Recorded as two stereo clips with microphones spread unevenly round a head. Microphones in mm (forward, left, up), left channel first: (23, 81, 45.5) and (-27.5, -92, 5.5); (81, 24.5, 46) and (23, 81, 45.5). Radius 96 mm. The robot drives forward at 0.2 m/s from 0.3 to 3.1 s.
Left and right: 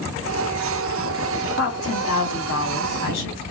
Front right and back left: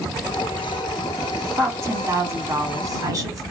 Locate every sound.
1.6 s a woman speaking: 80° left, 1.6 m; by 3.4 s 90° left, 1.6 m